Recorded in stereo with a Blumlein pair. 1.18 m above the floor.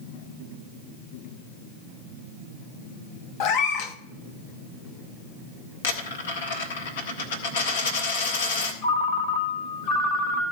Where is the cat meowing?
45° left, 1.1 m.